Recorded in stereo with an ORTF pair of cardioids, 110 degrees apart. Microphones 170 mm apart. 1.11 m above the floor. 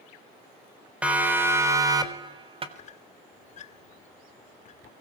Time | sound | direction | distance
1.0 | a siren | 5° right | 4 m
2.8 | a squeak | 45° left | 1.6 m